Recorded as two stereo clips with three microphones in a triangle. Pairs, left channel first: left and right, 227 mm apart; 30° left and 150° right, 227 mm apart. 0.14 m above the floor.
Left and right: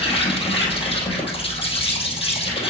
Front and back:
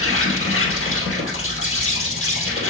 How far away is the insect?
About 2.5 m.